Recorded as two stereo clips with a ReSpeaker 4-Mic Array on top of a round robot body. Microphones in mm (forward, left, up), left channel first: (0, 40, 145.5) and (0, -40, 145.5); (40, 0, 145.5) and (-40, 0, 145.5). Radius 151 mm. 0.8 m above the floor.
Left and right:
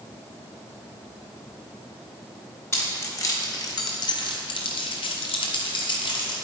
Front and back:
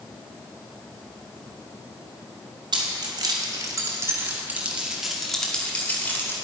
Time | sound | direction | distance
2.7 | keys jangling | 150° left | 1.5 m